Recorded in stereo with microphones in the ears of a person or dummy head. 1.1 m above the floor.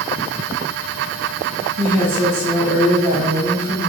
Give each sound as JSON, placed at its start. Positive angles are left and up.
{"t": 1.8, "sound": "a woman speaking", "side_deg": -45, "distance_m": 1.5}